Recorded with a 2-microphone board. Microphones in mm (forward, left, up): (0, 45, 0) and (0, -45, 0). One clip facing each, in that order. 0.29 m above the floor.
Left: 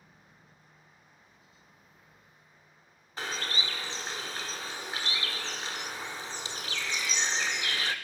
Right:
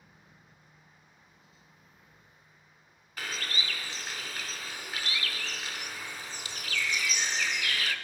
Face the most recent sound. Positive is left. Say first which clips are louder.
# left 2 dB
turn(degrees=25)  # may be behind; listen again after turning